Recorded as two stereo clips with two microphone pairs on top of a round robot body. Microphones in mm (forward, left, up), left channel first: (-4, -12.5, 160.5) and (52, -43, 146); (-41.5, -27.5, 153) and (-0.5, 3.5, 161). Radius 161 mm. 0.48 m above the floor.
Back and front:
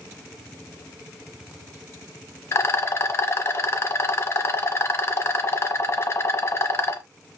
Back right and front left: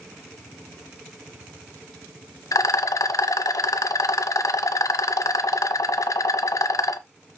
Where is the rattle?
160° right, 0.5 m.